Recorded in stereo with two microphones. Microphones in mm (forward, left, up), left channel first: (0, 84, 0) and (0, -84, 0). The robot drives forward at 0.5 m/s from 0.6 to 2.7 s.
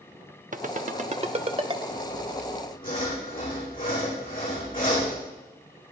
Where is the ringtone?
50° right (ahead or behind), 0.7 m; by 1.8 s 30° right (ahead or behind), 1.0 m.